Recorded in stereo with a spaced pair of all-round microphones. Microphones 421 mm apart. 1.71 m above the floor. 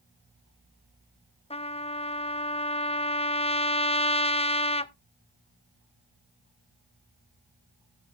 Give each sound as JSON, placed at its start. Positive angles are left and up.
{"t": 1.5, "sound": "a trumpet", "side_deg": 15, "distance_m": 0.5}